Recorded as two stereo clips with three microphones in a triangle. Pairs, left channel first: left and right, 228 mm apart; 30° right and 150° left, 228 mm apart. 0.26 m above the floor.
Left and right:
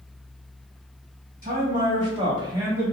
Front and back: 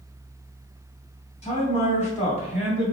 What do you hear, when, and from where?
1.4 s a man speaking: 75° right, 1.7 m; by 2.9 s 15° right, 1.5 m